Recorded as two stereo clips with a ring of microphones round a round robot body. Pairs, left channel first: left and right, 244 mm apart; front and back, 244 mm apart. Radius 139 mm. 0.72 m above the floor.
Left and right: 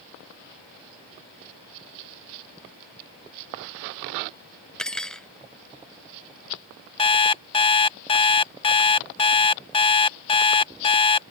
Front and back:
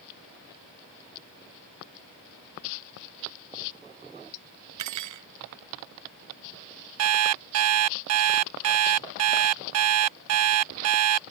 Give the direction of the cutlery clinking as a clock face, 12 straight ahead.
6 o'clock.